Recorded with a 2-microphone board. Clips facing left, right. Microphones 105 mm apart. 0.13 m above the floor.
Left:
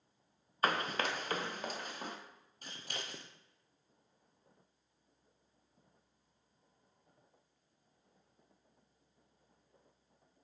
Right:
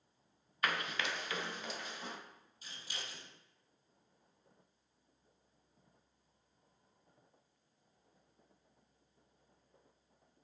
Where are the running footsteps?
35° left (ahead or behind), 0.5 m; by 2.1 s 45° left (ahead or behind), 1.9 m.